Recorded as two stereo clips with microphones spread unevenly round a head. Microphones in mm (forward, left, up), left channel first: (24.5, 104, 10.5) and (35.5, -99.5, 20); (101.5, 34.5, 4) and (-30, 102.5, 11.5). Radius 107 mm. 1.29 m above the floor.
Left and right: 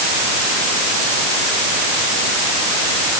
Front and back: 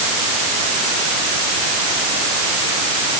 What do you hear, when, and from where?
Only background noise.